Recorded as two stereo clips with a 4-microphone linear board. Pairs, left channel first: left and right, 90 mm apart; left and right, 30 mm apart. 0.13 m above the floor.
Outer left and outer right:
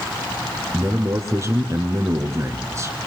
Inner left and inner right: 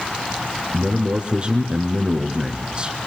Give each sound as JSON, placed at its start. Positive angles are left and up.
{"t": 0.7, "sound": "a man speaking", "side_deg": -35, "distance_m": 1.3}